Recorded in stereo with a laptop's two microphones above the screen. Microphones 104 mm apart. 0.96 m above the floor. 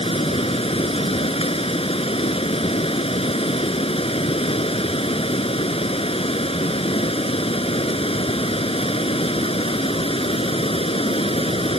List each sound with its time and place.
0.0 s running water: 60° left (ahead or behind)